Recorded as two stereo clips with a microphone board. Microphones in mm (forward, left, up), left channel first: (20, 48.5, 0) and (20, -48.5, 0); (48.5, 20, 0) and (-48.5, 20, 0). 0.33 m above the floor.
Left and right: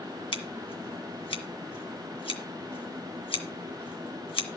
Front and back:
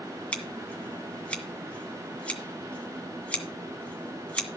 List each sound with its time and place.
0.3 s scissors: 75° left, 2.0 m